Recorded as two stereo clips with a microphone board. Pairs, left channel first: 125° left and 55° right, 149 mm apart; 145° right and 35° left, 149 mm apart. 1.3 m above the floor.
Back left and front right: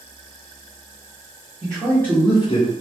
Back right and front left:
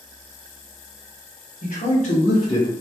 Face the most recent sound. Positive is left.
turn(degrees=135)